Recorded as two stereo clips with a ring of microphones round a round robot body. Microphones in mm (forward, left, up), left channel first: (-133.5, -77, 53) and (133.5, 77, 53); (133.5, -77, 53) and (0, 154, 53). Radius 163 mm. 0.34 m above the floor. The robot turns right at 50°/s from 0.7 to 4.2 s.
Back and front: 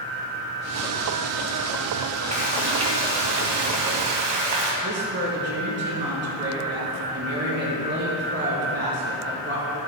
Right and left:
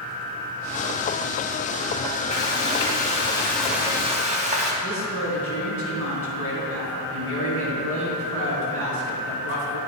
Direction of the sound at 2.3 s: 35° right.